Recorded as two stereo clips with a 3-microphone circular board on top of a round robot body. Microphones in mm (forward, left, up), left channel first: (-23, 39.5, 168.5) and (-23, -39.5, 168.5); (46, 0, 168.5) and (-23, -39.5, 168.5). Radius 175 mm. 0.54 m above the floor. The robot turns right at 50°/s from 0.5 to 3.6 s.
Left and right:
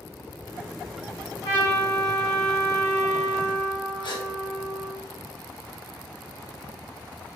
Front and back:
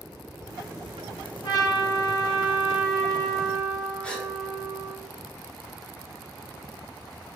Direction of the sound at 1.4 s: 70° left.